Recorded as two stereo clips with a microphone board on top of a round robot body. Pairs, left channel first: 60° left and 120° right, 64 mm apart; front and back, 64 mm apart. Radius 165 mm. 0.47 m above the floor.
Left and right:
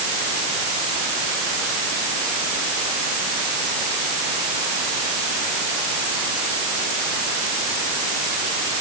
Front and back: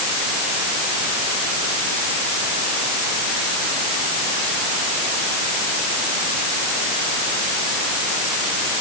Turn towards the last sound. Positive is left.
No sound to turn to.